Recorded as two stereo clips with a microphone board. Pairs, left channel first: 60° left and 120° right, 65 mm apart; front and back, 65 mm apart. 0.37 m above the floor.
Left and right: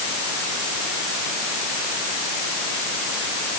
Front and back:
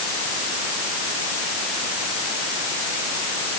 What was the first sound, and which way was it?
Only background noise.